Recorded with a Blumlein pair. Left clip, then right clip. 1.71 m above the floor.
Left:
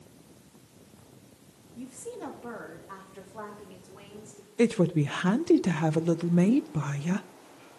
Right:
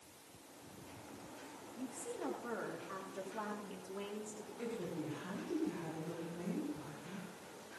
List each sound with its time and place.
1.8 s a woman speaking: 15° left, 3 m; by 4.5 s straight ahead, 4 m
4.6 s a woman speaking: 40° left, 0.6 m